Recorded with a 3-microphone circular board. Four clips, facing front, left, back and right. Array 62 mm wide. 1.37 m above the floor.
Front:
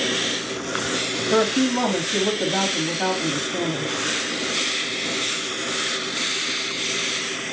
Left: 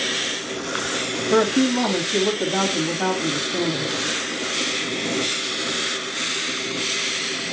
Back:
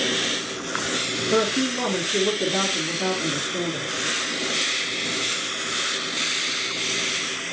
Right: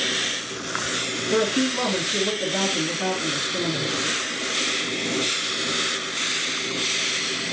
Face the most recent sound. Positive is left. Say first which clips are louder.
# left 4 dB, front 3 dB
turn(degrees=40)